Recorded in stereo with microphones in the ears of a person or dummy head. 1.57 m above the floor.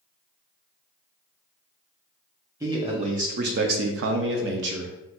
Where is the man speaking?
20° right (ahead or behind), 0.7 m; by 4.9 s 55° right (ahead or behind), 0.9 m.